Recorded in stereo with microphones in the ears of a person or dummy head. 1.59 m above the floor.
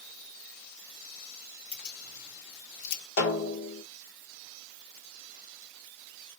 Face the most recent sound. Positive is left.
turn(degrees=50)  # may be behind; listen again after turning